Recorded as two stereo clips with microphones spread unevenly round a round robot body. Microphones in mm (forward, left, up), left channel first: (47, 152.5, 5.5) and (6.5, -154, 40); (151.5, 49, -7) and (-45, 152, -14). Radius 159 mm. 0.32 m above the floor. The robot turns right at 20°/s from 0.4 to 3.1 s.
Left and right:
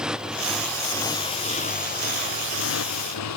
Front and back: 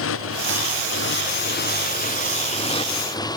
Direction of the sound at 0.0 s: 10° right.